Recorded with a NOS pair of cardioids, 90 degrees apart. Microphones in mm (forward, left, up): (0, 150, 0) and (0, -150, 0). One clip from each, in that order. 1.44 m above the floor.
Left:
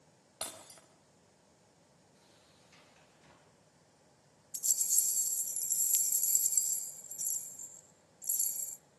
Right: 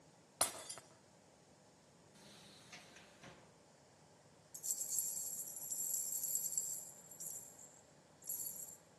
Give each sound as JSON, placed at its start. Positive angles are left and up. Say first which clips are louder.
{"t": 0.4, "sound": "breaking glass", "louder": "right 3 dB", "azimuth_deg": -40, "distance_m": 5.0}
{"t": 2.1, "sound": "a sliding door", "louder": "right 5 dB", "azimuth_deg": -55, "distance_m": 4.0}
{"t": 4.5, "sound": "a rattle", "louder": "left 11 dB", "azimuth_deg": 60, "distance_m": 1.0}